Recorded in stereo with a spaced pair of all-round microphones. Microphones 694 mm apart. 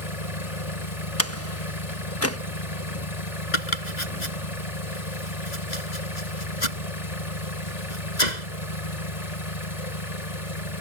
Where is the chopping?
80° left.